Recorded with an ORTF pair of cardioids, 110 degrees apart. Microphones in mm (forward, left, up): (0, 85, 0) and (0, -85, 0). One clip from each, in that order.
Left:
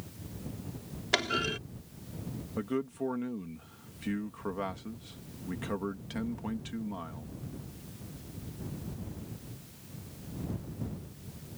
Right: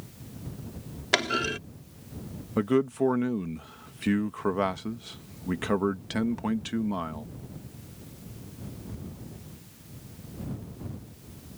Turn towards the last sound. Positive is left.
turn(degrees=-50)